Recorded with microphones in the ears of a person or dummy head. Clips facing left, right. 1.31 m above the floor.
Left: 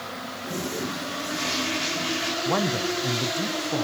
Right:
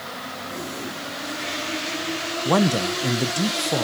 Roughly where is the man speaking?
Right.